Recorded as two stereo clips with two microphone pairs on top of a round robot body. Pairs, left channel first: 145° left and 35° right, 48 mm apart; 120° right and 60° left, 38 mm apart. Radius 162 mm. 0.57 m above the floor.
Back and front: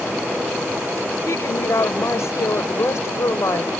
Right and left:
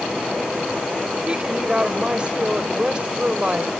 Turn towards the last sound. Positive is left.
turn(degrees=125)